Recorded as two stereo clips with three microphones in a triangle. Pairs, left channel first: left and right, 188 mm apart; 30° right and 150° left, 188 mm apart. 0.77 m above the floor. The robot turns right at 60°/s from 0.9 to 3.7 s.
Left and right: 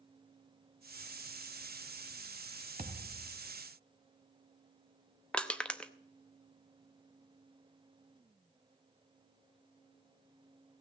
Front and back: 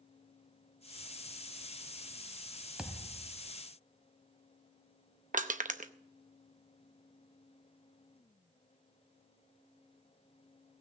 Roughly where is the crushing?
Behind.